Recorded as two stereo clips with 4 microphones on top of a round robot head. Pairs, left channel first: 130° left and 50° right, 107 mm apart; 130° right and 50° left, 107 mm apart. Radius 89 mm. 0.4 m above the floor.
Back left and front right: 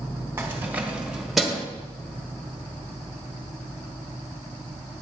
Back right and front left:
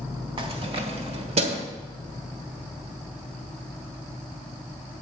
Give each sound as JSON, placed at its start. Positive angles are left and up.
{"t": 0.4, "sound": "keys jangling", "azimuth_deg": 15, "distance_m": 1.6}